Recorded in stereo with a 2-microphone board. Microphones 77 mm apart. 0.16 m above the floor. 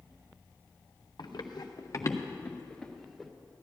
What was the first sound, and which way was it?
Running footsteps, 70° left (ahead or behind).